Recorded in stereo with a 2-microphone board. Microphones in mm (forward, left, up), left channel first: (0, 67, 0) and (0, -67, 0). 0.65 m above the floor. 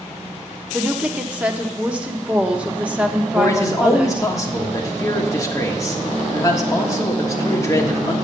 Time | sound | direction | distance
0.7 | a woman speaking | 10° right (ahead or behind) | 1.0 m
3.4 | a man speaking | 25° left (ahead or behind) | 1.4 m